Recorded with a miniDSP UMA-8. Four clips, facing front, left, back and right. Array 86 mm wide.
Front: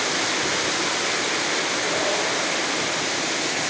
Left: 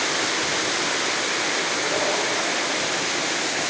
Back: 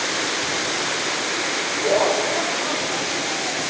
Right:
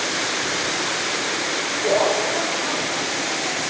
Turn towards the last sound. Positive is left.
turn(degrees=-150)